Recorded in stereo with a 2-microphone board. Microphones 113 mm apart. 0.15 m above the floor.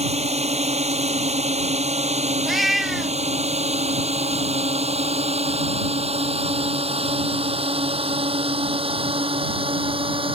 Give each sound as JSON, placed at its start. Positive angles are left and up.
{"t": 0.0, "sound": "a drone", "side_deg": -70}
{"t": 2.5, "sound": "a cat meowing", "side_deg": 0}